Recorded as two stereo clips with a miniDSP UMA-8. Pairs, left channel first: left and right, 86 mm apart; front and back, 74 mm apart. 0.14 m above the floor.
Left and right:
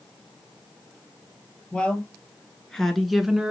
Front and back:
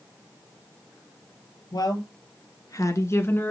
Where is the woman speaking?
10° left, 3 m; by 3.5 s 25° right, 1.3 m.